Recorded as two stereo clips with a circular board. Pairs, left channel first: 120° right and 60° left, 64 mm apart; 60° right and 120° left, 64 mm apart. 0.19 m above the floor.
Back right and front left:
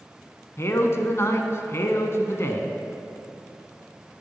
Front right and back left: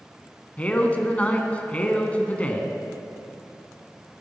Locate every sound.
0.6 s a man speaking: 120° right, 1.4 m